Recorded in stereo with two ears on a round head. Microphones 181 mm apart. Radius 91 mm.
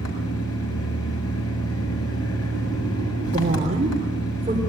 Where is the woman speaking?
35° right (ahead or behind), 3.5 m.